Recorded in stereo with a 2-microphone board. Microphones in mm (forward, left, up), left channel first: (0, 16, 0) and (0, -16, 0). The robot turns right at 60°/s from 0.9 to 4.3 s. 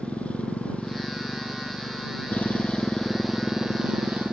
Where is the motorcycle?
40° left; by 4.3 s 115° right.